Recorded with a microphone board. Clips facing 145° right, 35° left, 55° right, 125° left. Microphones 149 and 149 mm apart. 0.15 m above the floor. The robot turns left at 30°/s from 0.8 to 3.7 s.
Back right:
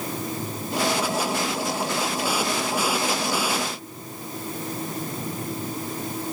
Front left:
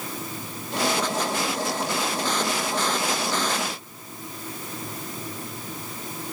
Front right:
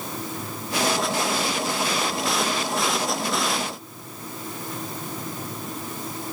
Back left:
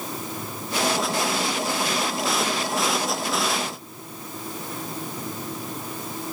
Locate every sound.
Only background noise.